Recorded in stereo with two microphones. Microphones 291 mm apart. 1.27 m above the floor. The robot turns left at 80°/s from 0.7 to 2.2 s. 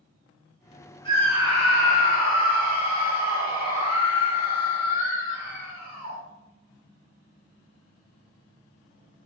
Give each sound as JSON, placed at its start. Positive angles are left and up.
{"t": 1.1, "sound": "a scream", "azimuth_deg": 20, "distance_m": 2.0}